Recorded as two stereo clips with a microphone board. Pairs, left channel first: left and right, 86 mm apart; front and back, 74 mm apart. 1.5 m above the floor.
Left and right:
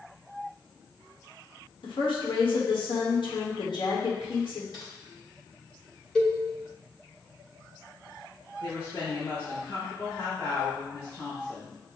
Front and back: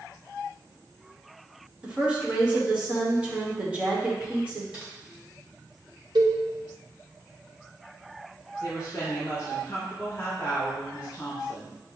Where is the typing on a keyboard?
105° left, 1.7 m.